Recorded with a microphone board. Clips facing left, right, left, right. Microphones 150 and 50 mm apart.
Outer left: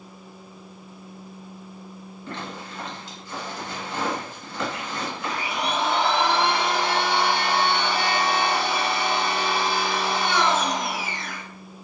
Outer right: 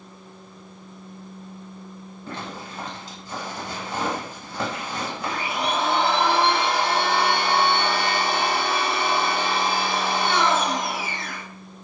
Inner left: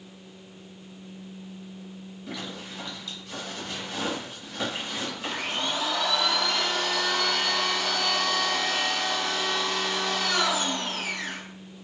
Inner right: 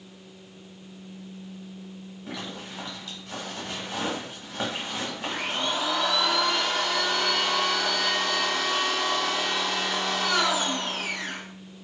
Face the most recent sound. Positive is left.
turn(degrees=-25)  # may be behind; listen again after turning